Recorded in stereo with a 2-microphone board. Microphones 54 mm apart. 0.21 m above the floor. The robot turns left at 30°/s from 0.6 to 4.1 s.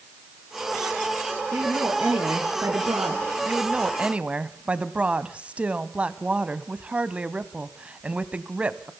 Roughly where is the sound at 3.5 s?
Right.